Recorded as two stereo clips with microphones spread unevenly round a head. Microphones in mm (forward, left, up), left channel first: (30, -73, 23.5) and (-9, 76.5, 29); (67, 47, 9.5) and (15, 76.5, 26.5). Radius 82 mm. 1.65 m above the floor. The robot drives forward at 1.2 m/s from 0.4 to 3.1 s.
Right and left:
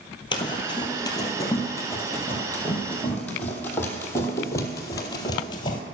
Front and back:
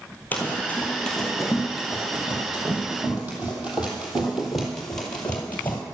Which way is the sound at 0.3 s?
110° right.